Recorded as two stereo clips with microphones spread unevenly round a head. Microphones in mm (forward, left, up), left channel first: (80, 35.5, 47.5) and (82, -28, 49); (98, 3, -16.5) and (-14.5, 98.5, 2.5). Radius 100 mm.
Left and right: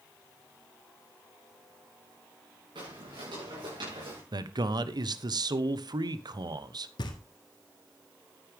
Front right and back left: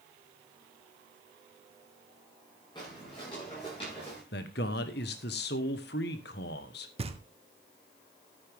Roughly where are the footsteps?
Right.